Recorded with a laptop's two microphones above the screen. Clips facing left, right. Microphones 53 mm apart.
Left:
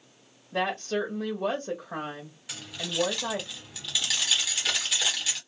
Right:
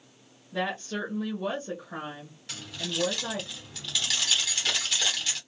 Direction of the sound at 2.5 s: 10° left (ahead or behind).